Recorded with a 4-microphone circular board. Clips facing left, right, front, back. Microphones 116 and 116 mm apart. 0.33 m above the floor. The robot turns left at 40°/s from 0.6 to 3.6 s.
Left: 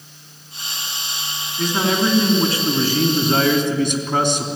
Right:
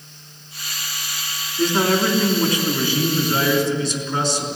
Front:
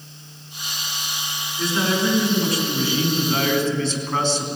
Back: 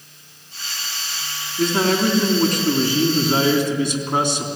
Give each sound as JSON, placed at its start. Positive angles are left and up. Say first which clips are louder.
{"t": 1.6, "sound": "a man speaking", "louder": "right 1 dB, back 4 dB", "azimuth_deg": -175, "distance_m": 3.5}